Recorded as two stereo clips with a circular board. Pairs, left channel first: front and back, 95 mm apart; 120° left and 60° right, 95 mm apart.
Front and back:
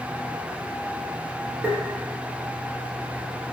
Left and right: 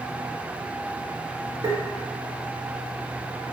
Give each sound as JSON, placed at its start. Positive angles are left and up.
{"t": 1.6, "sound": "tapping", "azimuth_deg": -110, "distance_m": 1.6}